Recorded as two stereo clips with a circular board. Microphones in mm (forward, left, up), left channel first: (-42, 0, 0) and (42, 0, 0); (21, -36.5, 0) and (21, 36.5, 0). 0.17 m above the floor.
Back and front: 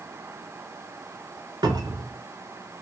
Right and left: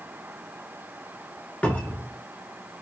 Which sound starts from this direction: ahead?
A cupboard door, at 1.6 s.